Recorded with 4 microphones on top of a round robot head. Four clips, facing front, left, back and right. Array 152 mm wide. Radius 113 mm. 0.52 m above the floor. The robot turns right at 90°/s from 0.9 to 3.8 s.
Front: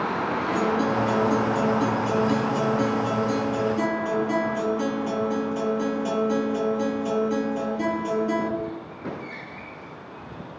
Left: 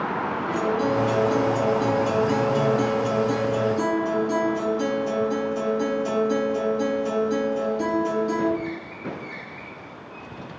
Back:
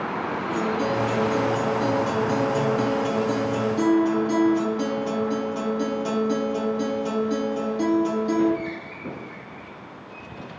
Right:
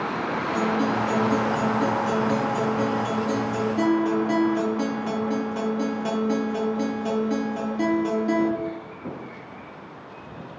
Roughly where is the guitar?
Ahead.